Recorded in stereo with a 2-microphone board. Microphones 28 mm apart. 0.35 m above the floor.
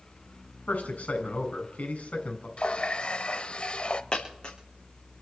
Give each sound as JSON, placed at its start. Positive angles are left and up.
{"t": 0.7, "sound": "a man speaking", "side_deg": 70, "distance_m": 3.5}
{"t": 2.6, "sound": "a running tap", "side_deg": 45, "distance_m": 1.0}
{"t": 4.1, "sound": "a dropped coin", "side_deg": 40, "distance_m": 6.0}